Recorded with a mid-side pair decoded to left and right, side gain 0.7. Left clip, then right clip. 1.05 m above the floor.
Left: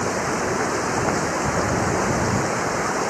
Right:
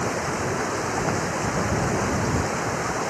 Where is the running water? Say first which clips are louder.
Left 3 dB; 20° left.